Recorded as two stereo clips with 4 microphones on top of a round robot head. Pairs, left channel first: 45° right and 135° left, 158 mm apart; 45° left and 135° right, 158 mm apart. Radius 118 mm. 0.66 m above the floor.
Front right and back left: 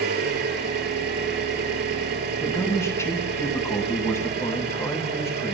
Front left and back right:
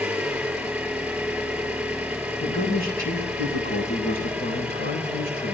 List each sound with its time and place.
0.0 s an engine running: 140° left, 6 m
2.4 s a man speaking: 25° left, 5.5 m